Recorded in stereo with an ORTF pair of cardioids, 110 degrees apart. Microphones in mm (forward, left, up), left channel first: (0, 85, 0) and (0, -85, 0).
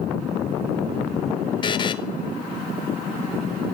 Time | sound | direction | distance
1.6 | a buzzer | 30° left | 0.6 m